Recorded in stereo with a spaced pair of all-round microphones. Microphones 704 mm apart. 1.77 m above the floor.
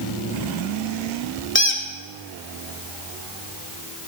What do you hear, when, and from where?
1.6 s a squeak: 15° left (ahead or behind), 1.6 m